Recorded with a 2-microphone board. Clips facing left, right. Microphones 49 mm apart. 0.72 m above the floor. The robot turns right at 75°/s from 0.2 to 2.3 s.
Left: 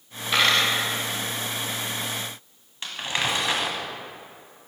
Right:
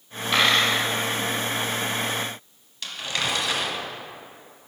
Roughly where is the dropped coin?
Behind.